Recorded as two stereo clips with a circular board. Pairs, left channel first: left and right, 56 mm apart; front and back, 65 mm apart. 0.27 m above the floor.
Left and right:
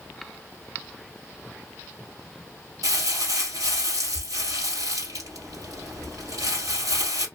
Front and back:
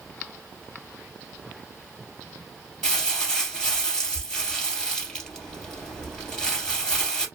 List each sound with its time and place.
2.8 s crumpling: 80° right, 2.5 m